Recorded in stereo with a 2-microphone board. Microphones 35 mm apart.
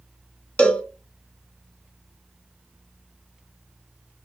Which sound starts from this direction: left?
A cowbell, at 0.6 s.